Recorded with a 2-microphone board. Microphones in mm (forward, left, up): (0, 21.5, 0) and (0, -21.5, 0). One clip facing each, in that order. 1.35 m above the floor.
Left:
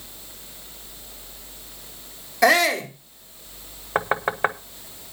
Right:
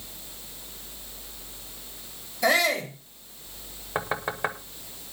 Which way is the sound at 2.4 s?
90° left.